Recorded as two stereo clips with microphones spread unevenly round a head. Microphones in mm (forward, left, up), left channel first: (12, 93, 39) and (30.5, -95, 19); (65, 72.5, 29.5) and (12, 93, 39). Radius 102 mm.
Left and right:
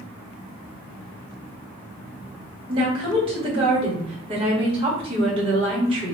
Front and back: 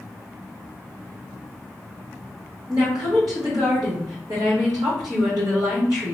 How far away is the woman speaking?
About 1.7 m.